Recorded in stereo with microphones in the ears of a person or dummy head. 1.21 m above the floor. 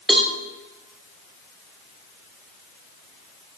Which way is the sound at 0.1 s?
Centre (ahead or behind).